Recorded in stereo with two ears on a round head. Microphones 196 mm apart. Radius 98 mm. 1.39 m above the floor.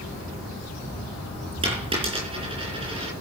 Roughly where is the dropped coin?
Right.